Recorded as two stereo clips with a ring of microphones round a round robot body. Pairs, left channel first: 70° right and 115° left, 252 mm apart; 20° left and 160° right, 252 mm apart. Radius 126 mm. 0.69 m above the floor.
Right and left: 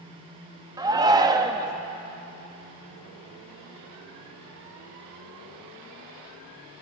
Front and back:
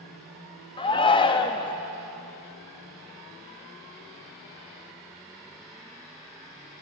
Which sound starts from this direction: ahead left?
A shout, at 0.8 s.